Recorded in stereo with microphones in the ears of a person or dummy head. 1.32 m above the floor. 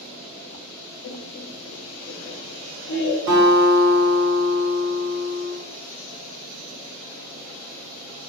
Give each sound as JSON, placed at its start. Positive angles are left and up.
{"t": 1.0, "sound": "laughter", "side_deg": 60, "distance_m": 0.7}
{"t": 3.3, "sound": "a guitar", "side_deg": -45, "distance_m": 1.5}